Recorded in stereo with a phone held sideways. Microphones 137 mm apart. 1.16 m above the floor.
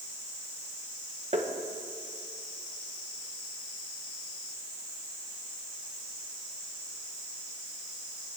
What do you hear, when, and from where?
1.3 s tapping: 55° right (ahead or behind), 1.3 m